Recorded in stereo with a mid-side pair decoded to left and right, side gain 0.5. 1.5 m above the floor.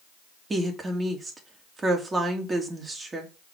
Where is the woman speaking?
30° right, 2.5 m.